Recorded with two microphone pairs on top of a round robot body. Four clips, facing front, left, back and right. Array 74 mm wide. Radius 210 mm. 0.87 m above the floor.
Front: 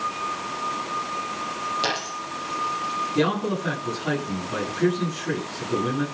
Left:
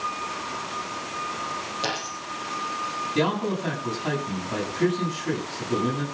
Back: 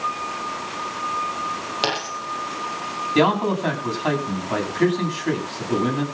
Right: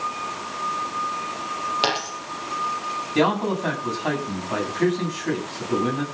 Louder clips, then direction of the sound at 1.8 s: Right 5 dB, back 2 dB; 125° right.